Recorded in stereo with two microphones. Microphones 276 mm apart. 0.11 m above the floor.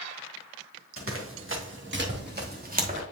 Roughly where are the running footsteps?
Right.